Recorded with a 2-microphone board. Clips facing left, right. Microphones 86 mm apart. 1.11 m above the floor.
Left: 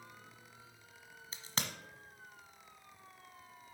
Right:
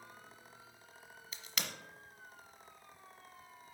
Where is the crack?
35° left (ahead or behind), 1.0 m.